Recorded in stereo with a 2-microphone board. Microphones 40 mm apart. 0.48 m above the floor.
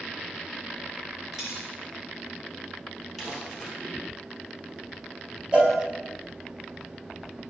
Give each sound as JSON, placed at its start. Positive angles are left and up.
{"t": 1.3, "sound": "a dropped coin", "side_deg": 0, "distance_m": 2.5}
{"t": 3.2, "sound": "crumpling", "side_deg": 5, "distance_m": 2.5}
{"t": 5.5, "sound": "a cowbell", "side_deg": -20, "distance_m": 1.5}